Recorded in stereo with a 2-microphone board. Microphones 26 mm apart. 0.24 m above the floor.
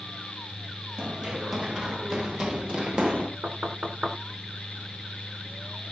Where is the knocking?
55° right (ahead or behind), 3 m.